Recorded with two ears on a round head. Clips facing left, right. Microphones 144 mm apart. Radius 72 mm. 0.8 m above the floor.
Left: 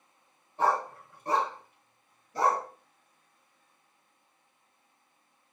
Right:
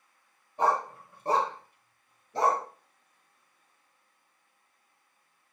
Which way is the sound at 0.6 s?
15° right (ahead or behind).